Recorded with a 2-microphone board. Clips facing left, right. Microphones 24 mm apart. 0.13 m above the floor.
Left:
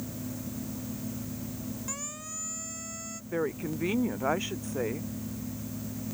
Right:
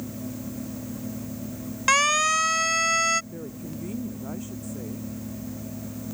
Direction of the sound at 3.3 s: 60° left (ahead or behind).